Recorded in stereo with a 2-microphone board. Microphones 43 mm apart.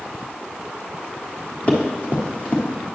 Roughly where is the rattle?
I don't hear a rattle.